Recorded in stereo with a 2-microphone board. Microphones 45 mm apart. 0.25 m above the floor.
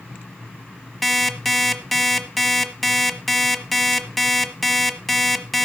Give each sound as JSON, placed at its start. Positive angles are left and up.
{"t": 1.0, "sound": "an alarm clock", "side_deg": 5, "distance_m": 1.1}